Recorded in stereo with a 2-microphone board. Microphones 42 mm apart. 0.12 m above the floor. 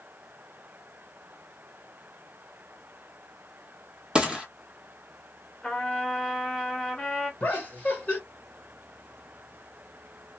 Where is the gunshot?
20° right (ahead or behind), 1.0 m.